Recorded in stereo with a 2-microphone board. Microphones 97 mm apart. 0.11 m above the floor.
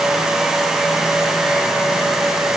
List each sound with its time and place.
Only background noise.